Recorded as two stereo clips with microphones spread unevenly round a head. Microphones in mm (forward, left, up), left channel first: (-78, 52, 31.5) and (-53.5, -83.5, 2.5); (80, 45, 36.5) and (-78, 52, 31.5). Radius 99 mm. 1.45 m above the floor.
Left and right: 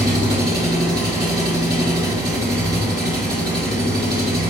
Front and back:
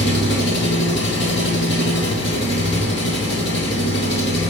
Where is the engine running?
5° right, 2.5 m.